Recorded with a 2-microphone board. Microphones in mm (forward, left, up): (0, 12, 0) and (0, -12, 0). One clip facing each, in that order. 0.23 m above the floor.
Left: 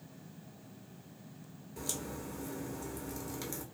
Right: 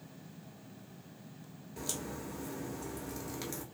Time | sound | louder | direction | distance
1.8 | a crack | even | 20° right (ahead or behind) | 0.9 m